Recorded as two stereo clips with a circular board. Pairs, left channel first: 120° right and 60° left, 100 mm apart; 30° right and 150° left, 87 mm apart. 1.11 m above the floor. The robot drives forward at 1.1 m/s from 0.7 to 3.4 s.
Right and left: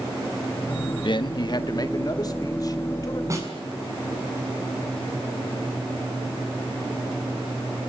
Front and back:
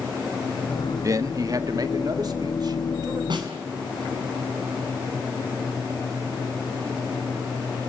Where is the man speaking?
155° right, 1.2 m; by 3.2 s 170° right, 3.5 m.